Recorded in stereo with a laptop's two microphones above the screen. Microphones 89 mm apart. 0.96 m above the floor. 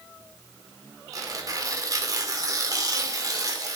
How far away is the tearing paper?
About 2.5 m.